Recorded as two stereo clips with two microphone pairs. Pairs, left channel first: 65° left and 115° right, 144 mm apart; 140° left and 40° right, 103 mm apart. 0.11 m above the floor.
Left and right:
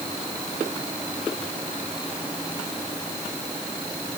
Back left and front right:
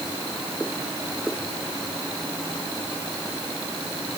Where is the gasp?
No gasp in this recording.